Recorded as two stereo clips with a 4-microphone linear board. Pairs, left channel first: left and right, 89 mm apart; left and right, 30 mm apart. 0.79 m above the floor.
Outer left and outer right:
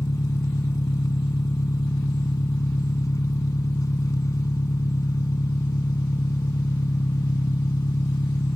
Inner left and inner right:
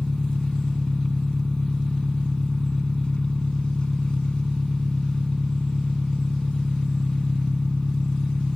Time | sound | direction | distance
0.0 | an engine running | 40° left (ahead or behind) | ?